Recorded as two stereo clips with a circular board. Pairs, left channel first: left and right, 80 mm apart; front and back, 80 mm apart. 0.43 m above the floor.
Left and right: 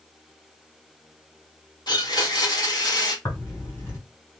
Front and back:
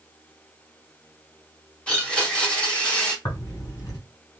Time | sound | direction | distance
1.9 | a blender | 75° left | 1.4 m
3.2 | tearing paper | 45° left | 2.5 m